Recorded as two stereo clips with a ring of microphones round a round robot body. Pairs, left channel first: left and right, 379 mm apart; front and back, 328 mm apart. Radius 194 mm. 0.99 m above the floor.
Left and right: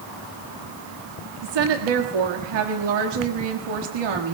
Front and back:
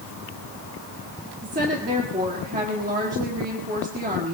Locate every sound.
1.4 s a woman speaking: 110° right, 1.7 m